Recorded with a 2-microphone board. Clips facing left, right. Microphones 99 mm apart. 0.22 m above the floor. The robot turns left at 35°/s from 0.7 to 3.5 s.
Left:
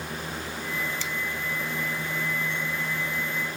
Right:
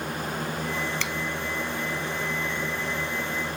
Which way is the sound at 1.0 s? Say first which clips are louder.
Right 3 dB; 70° right (ahead or behind).